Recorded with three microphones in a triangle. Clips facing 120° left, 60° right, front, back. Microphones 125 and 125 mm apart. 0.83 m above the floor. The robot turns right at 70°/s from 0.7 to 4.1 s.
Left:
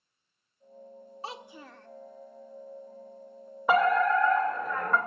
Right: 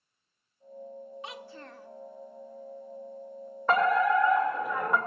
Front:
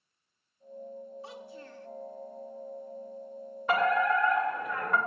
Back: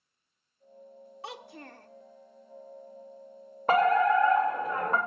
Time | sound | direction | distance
1.2 | a child speaking | 175° left | 0.5 m
3.7 | a fire alarm | 165° right | 2.5 m